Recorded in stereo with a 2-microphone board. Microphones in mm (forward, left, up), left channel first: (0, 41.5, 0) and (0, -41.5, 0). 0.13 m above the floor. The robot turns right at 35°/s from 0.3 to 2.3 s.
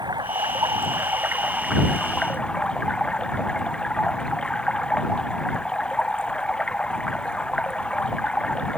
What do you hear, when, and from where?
0.0 s running water: 60° right; by 8.8 s 10° left